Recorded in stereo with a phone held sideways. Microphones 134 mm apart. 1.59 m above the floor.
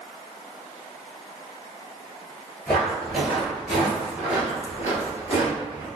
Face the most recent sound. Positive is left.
turn(degrees=-25)  # may be behind; listen again after turning